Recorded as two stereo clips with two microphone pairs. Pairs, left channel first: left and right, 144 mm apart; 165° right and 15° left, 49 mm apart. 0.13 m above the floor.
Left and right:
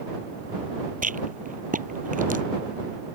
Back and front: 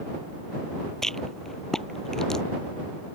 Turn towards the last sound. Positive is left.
turn(degrees=-80)